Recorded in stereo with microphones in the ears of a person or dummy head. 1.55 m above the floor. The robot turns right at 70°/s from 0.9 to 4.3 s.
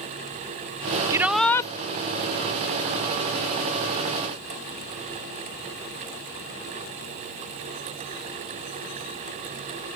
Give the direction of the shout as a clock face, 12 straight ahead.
1 o'clock.